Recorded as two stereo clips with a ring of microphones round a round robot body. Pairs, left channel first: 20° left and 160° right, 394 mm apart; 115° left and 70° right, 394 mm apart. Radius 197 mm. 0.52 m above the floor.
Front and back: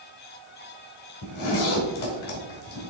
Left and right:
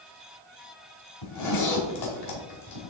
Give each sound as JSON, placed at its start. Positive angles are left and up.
{"t": 1.2, "sound": "a zipper", "azimuth_deg": 80, "distance_m": 2.0}